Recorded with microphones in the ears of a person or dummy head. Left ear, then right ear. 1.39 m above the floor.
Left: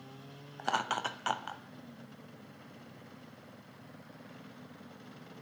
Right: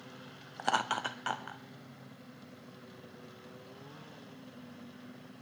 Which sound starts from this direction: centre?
Laughter, at 0.6 s.